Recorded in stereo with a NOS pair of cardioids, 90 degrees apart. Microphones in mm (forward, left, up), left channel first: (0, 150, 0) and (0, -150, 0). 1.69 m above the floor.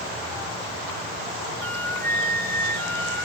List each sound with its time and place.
1.6 s a flute: 5° left, 2.5 m